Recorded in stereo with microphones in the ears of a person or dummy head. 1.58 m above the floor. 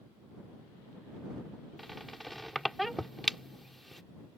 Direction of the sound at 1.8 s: Centre (ahead or behind).